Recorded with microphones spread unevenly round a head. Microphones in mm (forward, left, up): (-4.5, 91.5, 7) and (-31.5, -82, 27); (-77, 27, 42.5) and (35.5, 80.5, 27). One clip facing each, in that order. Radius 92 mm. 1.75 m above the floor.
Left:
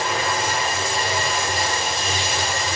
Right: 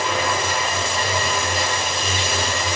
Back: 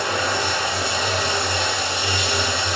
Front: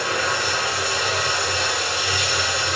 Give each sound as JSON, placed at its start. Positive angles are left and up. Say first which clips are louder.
{"t": 0.0, "sound": "running water", "louder": "right 1 dB, back 1 dB", "azimuth_deg": -110, "distance_m": 2.5}